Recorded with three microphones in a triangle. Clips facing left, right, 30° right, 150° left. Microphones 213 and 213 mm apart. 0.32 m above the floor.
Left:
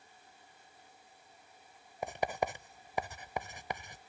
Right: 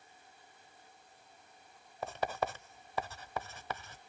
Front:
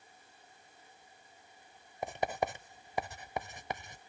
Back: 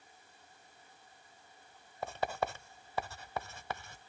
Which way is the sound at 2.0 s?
25° left.